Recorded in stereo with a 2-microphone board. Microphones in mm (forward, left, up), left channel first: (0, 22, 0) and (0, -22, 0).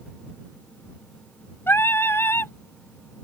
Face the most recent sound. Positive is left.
turn(degrees=60)  # may be behind; listen again after turning